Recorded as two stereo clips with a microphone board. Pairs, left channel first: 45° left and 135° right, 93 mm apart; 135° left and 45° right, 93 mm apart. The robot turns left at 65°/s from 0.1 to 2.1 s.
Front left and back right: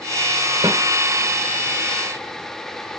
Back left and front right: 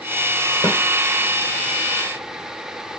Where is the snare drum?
170° right, 1.3 m; by 0.8 s straight behind, 1.3 m.